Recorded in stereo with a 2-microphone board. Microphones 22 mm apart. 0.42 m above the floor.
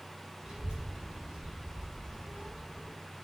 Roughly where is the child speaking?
Right.